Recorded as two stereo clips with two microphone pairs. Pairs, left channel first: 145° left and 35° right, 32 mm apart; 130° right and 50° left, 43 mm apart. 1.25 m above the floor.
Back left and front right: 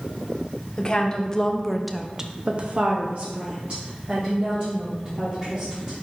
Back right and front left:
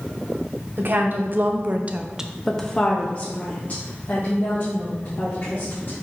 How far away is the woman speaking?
About 1.1 m.